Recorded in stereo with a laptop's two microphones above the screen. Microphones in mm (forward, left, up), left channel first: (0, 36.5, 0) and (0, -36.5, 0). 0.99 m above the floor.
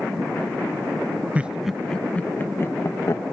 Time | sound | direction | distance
1.4 | laughter | 20° right (ahead or behind) | ?